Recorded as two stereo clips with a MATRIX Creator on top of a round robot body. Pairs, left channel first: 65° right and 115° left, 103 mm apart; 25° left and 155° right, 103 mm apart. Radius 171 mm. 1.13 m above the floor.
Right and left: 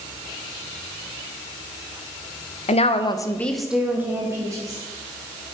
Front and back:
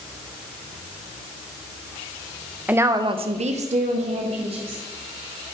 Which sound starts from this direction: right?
A woman speaking, at 2.7 s.